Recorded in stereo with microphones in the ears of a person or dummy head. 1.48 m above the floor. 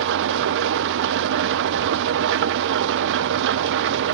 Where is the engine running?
65° right (ahead or behind), 0.7 m.